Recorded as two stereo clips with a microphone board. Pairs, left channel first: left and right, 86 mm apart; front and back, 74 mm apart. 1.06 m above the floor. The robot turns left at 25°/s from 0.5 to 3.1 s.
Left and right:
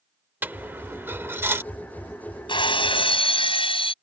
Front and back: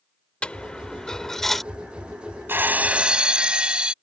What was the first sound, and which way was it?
A dropped coin, 55° right.